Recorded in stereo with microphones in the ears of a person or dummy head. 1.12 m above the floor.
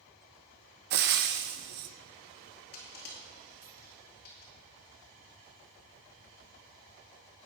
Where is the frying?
45° right (ahead or behind), 0.6 m.